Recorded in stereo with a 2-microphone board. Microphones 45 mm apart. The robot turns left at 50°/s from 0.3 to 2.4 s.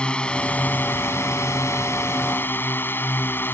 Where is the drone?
160° left; by 3.5 s 55° left.